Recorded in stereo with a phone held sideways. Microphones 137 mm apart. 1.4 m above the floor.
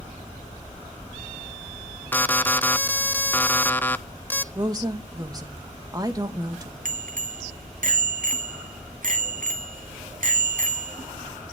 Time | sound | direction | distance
2.1 | an alarm | 15° left (ahead or behind) | 0.7 m
4.5 | a woman speaking | 25° right (ahead or behind) | 1.9 m
6.8 | a bicycle bell | 70° right (ahead or behind) | 2 m